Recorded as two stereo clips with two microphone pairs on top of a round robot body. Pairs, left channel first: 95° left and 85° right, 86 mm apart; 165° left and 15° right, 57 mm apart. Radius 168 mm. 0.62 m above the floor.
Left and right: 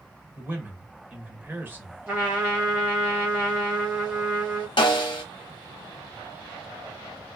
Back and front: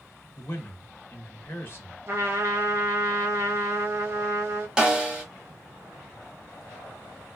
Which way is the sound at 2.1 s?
25° right.